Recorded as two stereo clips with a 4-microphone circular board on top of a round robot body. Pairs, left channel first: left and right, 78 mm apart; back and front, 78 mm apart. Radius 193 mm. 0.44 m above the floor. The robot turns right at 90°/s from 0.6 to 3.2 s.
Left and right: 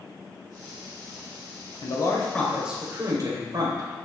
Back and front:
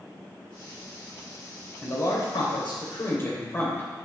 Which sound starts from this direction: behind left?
A man speaking, at 1.8 s.